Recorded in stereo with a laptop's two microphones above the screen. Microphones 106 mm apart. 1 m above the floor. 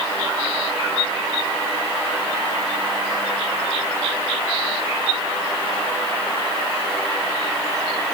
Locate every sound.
Only background noise.